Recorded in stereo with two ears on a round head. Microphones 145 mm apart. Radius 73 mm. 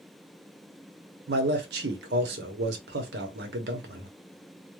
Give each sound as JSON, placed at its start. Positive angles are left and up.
{"t": 1.3, "sound": "a man speaking", "side_deg": -65, "distance_m": 0.9}